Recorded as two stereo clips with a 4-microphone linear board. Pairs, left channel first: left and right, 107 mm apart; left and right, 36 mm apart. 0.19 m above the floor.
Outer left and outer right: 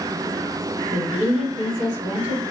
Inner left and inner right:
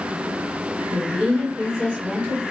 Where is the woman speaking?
15° right (ahead or behind), 2.5 m.